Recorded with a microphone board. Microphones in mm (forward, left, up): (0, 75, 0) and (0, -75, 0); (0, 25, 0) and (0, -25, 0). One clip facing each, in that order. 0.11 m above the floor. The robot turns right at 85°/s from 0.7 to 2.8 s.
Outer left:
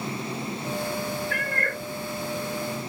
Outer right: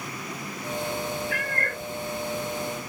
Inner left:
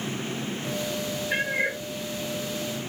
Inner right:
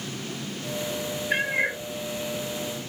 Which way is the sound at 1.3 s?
160° right.